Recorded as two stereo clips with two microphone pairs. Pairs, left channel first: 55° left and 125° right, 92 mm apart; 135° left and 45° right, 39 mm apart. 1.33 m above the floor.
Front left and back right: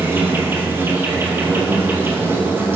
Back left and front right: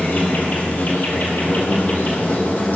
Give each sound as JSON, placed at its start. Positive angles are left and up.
{"t": 0.0, "sound": "an insect", "azimuth_deg": 170, "distance_m": 2.5}